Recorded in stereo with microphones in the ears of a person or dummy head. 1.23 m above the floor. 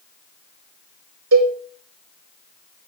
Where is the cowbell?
80° right, 1.8 m.